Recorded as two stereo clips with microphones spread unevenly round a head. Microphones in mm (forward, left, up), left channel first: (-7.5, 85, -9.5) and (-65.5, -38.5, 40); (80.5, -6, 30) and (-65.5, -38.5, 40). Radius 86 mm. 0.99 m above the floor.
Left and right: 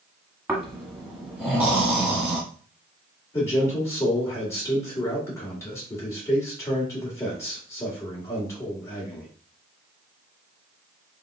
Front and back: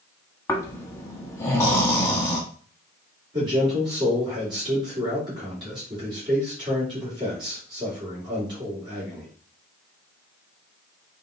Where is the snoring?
55° right, 1.1 m.